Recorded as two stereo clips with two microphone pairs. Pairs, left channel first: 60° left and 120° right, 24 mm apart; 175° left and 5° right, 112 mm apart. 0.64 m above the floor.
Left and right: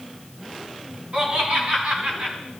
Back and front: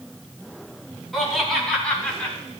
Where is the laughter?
95° right, 5 m; by 2.4 s 105° right, 4 m.